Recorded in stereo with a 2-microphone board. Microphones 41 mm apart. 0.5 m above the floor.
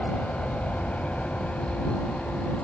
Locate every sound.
0.0 s an aircraft: 35° left (ahead or behind)